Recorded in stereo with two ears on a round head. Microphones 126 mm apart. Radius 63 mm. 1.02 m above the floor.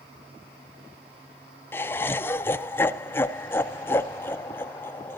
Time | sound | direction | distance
1.7 | laughter | 15° left (ahead or behind) | 0.5 m